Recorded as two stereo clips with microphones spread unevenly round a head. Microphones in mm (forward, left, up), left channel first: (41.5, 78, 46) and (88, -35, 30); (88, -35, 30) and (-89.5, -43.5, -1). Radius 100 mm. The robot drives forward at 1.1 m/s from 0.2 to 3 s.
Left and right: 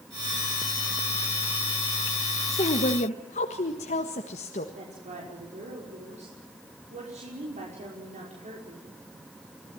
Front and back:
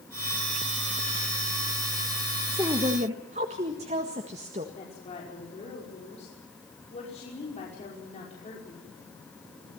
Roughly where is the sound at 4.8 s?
Ahead right.